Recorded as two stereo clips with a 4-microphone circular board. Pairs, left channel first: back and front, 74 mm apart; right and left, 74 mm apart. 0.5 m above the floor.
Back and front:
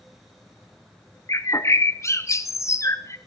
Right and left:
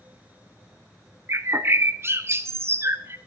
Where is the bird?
140° left, 0.7 m.